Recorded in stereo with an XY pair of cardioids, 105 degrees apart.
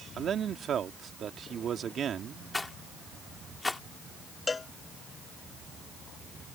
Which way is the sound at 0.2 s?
55° right.